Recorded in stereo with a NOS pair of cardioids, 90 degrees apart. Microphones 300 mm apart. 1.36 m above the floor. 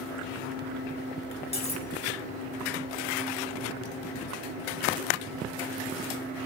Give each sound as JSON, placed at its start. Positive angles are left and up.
{"t": 1.5, "sound": "cutlery clinking", "azimuth_deg": 20, "distance_m": 1.8}